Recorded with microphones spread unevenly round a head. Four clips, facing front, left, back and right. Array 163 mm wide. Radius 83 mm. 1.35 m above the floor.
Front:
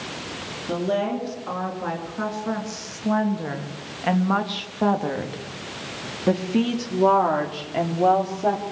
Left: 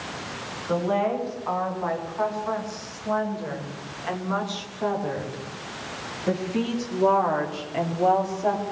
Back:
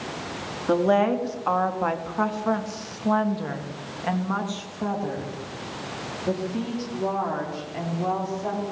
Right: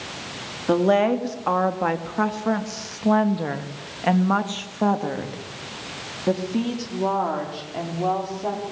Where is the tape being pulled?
No tape being pulled in this recording.